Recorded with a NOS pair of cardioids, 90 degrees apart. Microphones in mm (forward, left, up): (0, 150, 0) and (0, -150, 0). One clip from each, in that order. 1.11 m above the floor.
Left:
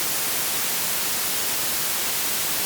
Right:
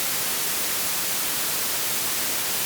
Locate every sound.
Only background noise.